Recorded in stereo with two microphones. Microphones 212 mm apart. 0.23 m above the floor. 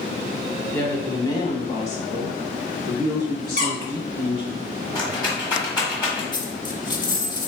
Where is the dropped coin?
20° left (ahead or behind), 0.6 m.